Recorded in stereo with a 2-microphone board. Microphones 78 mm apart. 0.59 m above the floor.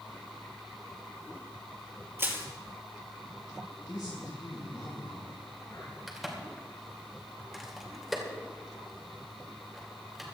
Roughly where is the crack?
Centre.